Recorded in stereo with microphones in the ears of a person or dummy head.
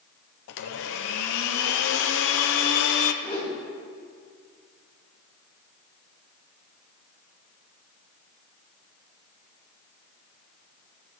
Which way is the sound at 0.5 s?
70° left (ahead or behind).